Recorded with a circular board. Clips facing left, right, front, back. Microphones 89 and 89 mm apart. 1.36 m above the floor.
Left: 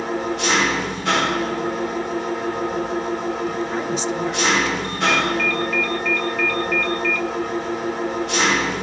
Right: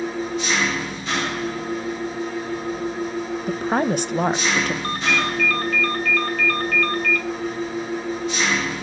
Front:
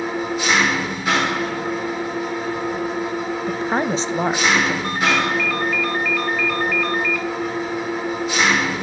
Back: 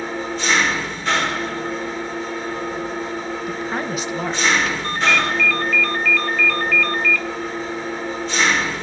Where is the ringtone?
80° right, 1.4 m.